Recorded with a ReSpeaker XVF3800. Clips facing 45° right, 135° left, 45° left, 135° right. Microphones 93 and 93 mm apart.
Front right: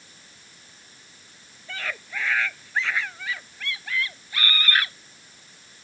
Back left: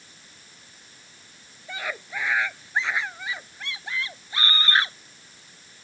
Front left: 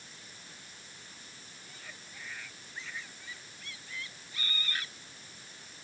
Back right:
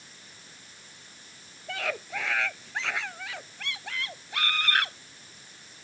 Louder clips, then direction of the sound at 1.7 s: Back left 1 dB, back right 21 dB; 150° right.